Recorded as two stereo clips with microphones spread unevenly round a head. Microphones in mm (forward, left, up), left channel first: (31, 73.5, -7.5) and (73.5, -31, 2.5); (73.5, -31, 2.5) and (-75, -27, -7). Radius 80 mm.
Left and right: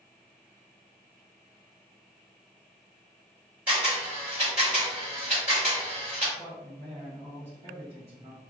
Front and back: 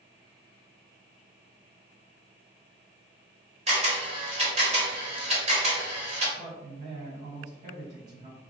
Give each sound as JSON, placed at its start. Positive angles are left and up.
{"t": 3.7, "sound": "a camera shutter", "azimuth_deg": -145, "distance_m": 1.6}
{"t": 6.4, "sound": "a man speaking", "azimuth_deg": -140, "distance_m": 0.8}